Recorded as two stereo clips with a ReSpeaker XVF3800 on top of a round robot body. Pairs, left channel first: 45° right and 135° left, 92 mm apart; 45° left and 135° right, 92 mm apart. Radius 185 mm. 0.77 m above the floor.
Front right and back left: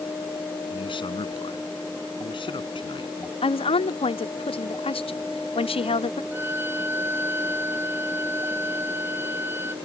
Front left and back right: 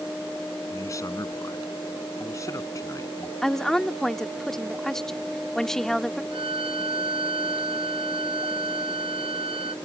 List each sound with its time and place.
0.7 s a man speaking: 15° right
3.4 s a woman speaking: 40° right
6.3 s a violin: 160° right